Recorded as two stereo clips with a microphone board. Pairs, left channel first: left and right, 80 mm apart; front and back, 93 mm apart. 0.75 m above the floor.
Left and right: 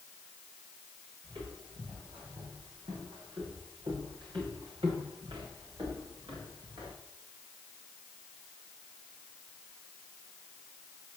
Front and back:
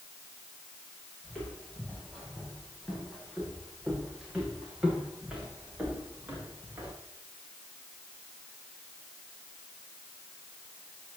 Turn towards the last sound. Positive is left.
turn(degrees=-110)